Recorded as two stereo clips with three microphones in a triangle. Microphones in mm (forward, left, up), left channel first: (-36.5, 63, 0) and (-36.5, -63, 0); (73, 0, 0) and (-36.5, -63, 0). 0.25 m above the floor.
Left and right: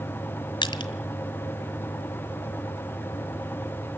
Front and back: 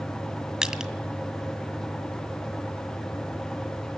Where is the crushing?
125° left, 1.8 m.